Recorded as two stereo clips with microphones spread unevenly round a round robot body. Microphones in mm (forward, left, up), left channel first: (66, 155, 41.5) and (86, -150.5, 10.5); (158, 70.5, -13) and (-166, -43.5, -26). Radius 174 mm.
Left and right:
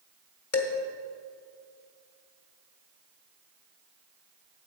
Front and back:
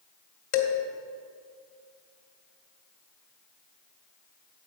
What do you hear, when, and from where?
0.5 s dishes clattering: 55° left, 1.6 m